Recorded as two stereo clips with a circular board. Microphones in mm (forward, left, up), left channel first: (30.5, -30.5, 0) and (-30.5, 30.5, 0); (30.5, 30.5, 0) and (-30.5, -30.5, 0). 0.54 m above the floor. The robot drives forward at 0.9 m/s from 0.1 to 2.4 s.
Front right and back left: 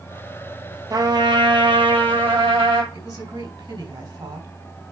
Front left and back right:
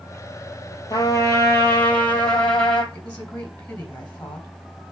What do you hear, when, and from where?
0.9 s a trumpet: 90° left, 2.5 m; by 2.8 s 120° left, 2.5 m
2.9 s a woman speaking: 115° left, 3.5 m